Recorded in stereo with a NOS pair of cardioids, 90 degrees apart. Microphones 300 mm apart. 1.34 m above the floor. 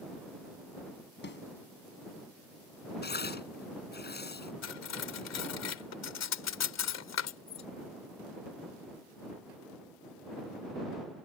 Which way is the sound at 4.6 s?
60° left.